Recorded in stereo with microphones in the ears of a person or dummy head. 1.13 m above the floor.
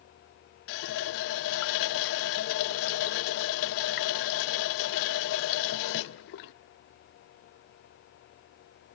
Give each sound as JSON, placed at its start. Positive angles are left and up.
{"t": 0.7, "sound": "a running tap", "side_deg": 55, "distance_m": 0.5}